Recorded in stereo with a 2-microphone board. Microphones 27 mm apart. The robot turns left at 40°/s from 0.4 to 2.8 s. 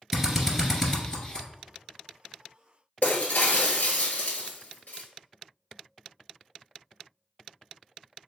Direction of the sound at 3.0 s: 65° left (ahead or behind).